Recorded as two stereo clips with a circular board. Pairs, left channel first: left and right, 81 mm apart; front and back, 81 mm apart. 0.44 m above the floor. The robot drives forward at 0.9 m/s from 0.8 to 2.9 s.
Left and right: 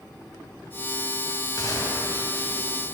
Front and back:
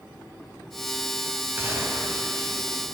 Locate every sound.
1.6 s a gunshot: 120° left, 2.5 m; by 2.5 s 135° left, 3 m